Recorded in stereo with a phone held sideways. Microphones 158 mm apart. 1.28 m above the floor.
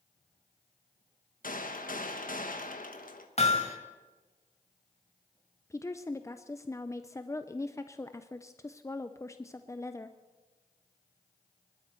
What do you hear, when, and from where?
1.4 s a gunshot: 65° left (ahead or behind), 1.3 m
3.4 s hammering: 50° left (ahead or behind), 1.9 m
5.7 s a woman speaking: 20° left (ahead or behind), 0.5 m